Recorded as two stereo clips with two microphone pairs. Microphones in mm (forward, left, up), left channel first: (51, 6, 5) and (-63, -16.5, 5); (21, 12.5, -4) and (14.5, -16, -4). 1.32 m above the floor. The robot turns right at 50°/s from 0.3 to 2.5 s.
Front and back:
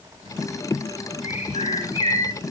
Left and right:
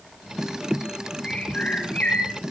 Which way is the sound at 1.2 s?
10° left.